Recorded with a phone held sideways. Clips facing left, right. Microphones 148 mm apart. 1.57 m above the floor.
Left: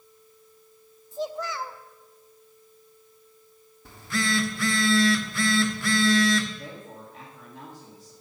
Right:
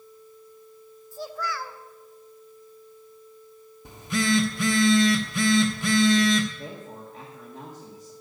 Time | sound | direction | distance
1.1 | a child speaking | 20° left (ahead or behind) | 0.9 m
3.9 | a phone buzzing | 20° right (ahead or behind) | 1.2 m
6.5 | a woman speaking | 40° right (ahead or behind) | 2 m